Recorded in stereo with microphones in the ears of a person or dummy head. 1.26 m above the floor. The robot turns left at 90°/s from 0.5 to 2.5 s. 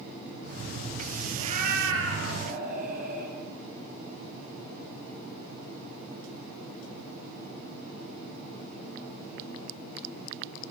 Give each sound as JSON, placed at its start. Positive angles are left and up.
{"t": 1.4, "sound": "a cat meowing", "azimuth_deg": -25, "distance_m": 7.5}